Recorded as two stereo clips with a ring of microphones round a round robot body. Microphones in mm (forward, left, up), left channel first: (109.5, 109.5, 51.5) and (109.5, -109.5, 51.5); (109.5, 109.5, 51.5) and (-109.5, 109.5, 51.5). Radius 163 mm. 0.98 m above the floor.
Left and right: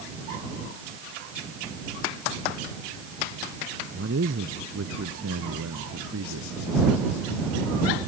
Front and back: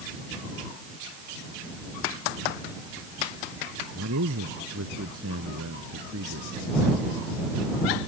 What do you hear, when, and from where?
3.9 s a man speaking: 140° right; by 6.5 s 130° right